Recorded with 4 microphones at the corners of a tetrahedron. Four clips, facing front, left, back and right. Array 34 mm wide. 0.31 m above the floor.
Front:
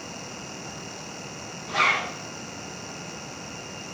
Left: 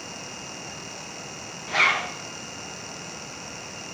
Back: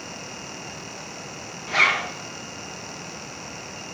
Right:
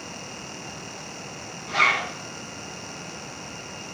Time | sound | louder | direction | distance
1.7 | a zipper | even, back 3 dB | 165° left | 6 m